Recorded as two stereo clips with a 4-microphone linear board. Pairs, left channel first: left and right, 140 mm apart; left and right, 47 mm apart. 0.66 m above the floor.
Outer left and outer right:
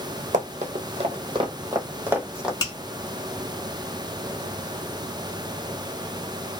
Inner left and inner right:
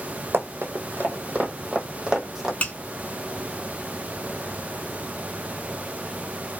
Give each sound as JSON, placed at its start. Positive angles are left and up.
{"t": 0.3, "sound": "running footsteps", "side_deg": -55, "distance_m": 1.1}
{"t": 2.6, "sound": "a finger snap", "side_deg": 25, "distance_m": 1.1}